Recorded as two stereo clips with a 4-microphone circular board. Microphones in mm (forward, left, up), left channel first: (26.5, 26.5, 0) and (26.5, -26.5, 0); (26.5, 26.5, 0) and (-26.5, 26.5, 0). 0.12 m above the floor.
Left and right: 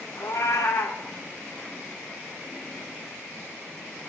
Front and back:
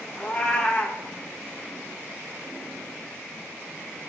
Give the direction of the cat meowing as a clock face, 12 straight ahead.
10 o'clock.